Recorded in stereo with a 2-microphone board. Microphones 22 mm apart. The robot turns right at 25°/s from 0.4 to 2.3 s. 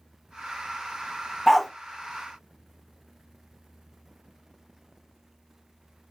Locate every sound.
1.5 s a dog barking: 10° left (ahead or behind), 0.6 m; by 1.7 s 5° left (ahead or behind), 0.6 m